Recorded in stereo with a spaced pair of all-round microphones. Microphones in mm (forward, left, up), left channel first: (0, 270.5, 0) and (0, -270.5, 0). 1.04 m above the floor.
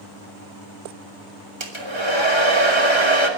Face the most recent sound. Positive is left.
turn(degrees=-60)  # may be behind; listen again after turning